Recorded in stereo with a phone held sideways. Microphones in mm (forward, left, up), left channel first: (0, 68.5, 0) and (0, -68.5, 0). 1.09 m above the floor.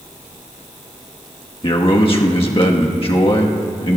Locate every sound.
1.6 s a man speaking: 40° left (ahead or behind), 1.4 m